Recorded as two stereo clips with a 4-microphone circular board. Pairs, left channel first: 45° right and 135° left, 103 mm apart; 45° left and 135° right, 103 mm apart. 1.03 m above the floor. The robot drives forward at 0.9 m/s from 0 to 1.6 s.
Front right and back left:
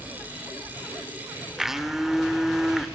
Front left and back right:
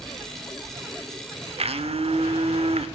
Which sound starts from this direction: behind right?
A blender, at 1.6 s.